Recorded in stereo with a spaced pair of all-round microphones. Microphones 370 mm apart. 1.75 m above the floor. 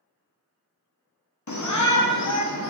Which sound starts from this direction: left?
A shout, at 1.5 s.